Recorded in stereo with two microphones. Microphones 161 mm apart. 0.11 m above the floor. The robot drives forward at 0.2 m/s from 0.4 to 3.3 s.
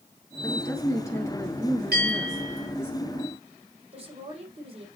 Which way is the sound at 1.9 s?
80° right.